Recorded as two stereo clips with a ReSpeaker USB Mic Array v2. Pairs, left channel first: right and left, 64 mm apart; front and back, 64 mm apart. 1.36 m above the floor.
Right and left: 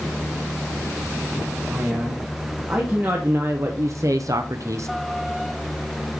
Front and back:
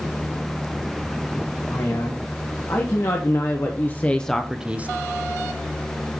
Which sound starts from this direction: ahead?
A man speaking, at 1.7 s.